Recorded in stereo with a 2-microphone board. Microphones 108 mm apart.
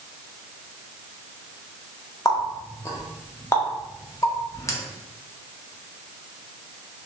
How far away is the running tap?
About 0.6 m.